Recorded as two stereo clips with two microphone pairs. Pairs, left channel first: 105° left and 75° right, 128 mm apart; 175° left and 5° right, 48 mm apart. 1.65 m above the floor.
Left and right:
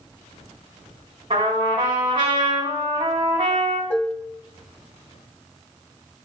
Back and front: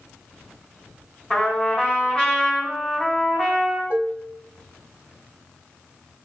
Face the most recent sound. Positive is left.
turn(degrees=35)